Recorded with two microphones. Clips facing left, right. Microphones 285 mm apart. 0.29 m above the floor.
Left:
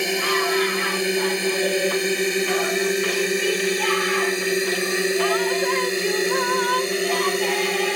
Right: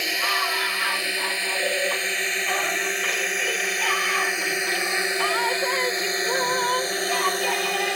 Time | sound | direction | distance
0.0 | a drone | 60° left (ahead or behind) | ?